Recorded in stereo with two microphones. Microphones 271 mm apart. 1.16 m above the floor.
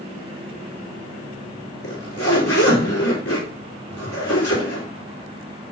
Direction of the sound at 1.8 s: 55° left (ahead or behind).